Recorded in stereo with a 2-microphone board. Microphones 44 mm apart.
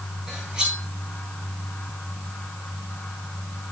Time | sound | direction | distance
0.3 | cutlery clinking | 15° right (ahead or behind) | 10 m